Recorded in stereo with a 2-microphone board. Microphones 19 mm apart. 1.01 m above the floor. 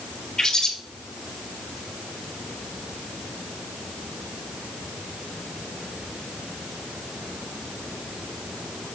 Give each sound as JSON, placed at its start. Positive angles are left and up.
{"t": 0.4, "sound": "a bird", "side_deg": 35, "distance_m": 4.0}